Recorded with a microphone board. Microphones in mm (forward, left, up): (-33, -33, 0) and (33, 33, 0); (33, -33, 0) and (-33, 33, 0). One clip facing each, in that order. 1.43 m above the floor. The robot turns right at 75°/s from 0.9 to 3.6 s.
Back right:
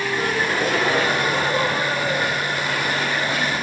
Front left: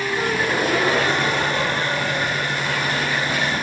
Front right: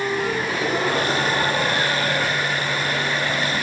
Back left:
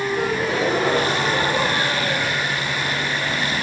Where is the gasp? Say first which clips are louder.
Front left 1 dB, back left 2 dB; 125° left, 4 m; by 3.5 s 40° right, 4 m.